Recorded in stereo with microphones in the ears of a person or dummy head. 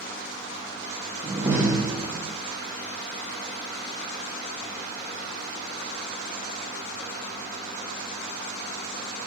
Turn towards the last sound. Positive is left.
turn(degrees=-5)  # may be behind; listen again after turning